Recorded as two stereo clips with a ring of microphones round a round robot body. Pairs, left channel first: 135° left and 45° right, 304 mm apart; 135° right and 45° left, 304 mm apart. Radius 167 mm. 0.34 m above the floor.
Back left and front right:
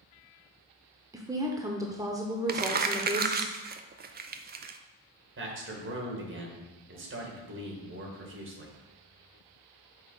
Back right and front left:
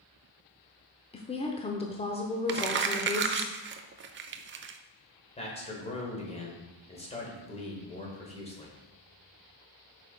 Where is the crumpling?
5° left, 0.6 m.